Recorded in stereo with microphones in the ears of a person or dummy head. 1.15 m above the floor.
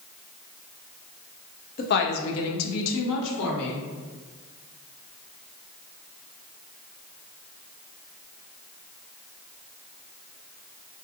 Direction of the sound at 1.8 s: 45° left (ahead or behind).